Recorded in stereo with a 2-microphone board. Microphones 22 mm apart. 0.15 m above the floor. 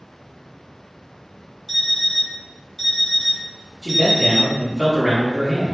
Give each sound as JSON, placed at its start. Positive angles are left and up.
{"t": 1.7, "sound": "an alarm clock", "side_deg": 15, "distance_m": 1.3}
{"t": 3.8, "sound": "a man speaking", "side_deg": 15, "distance_m": 1.5}